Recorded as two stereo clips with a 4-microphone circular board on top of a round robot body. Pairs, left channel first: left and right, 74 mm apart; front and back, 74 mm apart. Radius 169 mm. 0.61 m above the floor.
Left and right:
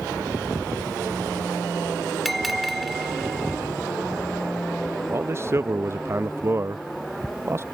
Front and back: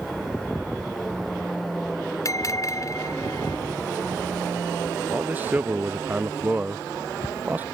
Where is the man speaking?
125° right.